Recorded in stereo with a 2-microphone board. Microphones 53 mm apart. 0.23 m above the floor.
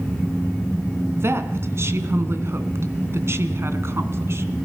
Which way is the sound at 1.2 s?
55° right (ahead or behind).